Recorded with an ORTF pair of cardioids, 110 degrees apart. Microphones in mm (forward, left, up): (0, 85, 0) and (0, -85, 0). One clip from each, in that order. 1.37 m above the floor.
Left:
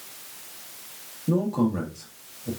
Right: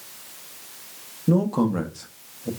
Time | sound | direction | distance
1.3 | a man speaking | 35° right | 0.9 m